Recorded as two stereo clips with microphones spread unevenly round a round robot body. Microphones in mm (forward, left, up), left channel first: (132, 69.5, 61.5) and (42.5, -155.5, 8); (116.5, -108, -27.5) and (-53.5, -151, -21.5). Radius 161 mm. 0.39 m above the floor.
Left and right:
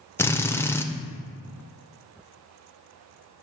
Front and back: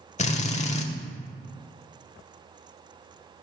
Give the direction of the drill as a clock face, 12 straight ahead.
1 o'clock.